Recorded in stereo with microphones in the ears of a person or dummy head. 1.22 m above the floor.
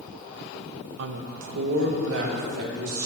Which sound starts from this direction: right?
A woman speaking, at 1.0 s.